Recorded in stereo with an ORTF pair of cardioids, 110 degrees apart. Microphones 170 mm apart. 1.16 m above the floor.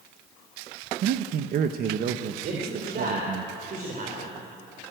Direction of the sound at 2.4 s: 50° right.